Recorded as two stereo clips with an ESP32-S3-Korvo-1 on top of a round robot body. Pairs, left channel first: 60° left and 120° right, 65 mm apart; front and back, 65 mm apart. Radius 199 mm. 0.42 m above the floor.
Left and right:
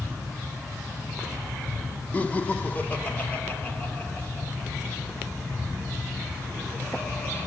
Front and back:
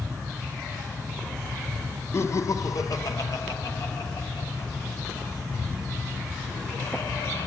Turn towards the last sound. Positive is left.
turn(degrees=-10)